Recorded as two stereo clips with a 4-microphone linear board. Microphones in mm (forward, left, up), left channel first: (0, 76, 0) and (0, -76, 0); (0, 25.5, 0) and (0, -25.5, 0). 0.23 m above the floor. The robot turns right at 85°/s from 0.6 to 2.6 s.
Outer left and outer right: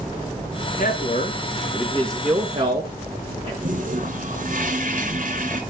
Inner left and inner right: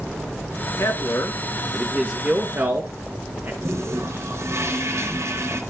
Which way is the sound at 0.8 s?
55° left (ahead or behind).